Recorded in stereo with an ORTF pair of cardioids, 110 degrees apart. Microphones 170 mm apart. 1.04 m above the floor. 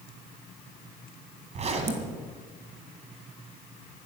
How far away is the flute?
No flute in this recording.